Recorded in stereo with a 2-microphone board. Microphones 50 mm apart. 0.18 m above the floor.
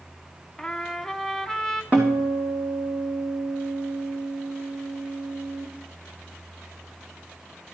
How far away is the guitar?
About 3.5 m.